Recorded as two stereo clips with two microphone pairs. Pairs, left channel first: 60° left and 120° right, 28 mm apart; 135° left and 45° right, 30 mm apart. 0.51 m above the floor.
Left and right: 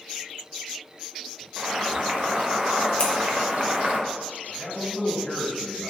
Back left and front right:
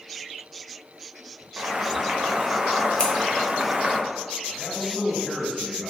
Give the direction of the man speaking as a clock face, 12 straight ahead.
10 o'clock.